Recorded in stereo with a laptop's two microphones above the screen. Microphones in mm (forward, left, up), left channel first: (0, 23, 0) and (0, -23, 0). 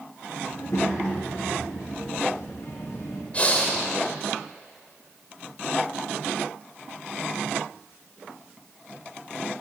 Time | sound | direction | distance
0.5 | a child speaking | 65° left (ahead or behind) | 0.7 m
3.3 | breathing | 25° left (ahead or behind) | 0.8 m